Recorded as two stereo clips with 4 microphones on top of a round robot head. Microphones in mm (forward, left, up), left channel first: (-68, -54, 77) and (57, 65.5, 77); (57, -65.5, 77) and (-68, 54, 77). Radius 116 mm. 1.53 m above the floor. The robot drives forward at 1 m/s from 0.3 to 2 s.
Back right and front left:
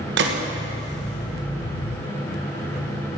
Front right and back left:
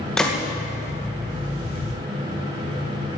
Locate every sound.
0.2 s a gunshot: 45° left, 2 m